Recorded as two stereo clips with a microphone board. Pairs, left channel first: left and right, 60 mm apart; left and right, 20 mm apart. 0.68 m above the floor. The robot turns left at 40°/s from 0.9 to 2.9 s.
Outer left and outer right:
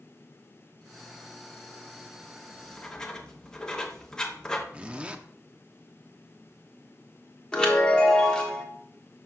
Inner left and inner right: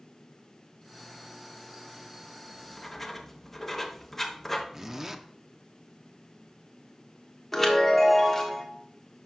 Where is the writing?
20° left (ahead or behind), 1.0 m; by 4.6 s 15° left (ahead or behind), 1.0 m.